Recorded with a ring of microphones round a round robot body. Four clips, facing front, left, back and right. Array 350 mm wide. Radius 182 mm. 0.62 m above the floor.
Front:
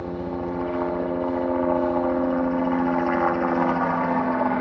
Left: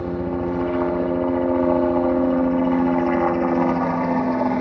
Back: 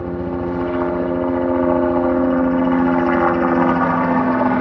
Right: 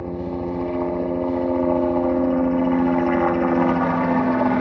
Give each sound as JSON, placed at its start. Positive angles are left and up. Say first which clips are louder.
{"t": 0.0, "sound": "a helicopter", "louder": "left 3 dB, back 6 dB", "azimuth_deg": 155}